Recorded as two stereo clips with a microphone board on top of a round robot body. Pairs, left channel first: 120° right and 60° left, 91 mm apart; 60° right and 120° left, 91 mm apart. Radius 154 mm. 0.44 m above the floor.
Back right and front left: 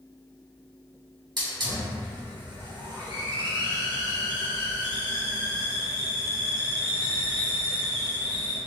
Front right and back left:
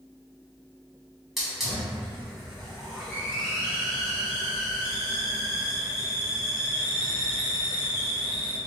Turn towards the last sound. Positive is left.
turn(degrees=35)